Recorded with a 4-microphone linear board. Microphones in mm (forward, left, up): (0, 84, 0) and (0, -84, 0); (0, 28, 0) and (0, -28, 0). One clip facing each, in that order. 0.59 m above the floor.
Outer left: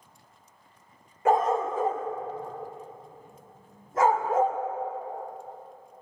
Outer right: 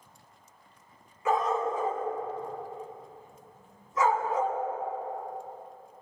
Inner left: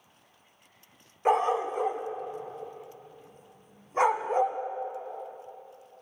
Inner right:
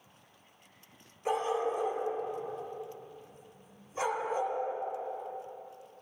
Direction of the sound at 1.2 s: 50° left (ahead or behind).